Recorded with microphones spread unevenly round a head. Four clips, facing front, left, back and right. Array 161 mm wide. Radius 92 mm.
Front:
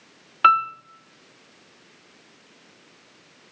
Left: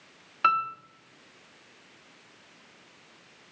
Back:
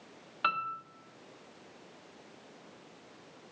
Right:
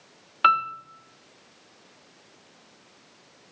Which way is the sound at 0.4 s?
15° right.